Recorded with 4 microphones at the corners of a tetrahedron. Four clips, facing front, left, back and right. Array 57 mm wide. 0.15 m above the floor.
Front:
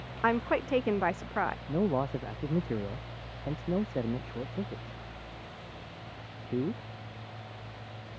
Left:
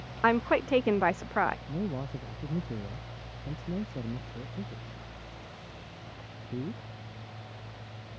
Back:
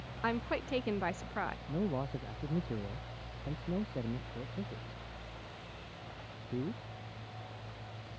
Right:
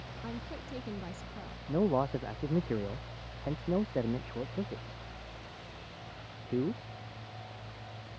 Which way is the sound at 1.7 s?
50° right.